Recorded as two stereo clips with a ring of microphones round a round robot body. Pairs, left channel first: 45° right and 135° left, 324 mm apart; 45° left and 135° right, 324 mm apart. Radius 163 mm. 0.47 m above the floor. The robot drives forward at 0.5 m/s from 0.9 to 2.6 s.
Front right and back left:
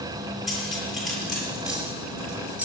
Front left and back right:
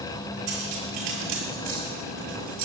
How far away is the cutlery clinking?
About 6.5 m.